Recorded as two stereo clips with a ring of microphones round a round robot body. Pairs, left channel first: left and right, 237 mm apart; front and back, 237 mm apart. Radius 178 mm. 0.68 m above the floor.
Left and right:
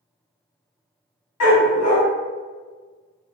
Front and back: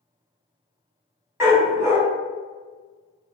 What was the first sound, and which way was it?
A dog barking, 100° left.